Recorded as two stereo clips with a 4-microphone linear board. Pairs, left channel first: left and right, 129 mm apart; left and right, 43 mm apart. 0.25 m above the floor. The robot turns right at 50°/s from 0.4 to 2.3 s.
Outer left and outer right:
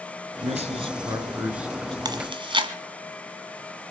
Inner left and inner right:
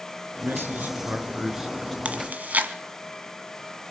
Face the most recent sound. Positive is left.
turn(degrees=-40)  # may be behind; listen again after turning